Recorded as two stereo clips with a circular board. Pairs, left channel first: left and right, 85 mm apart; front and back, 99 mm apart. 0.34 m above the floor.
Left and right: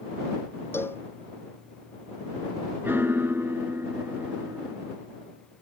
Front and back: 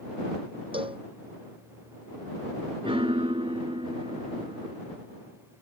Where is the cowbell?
150° left.